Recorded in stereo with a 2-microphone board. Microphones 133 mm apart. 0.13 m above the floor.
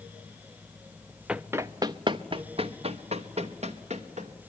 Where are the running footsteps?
5° right (ahead or behind), 0.5 m; by 4.3 s 60° right (ahead or behind), 2 m.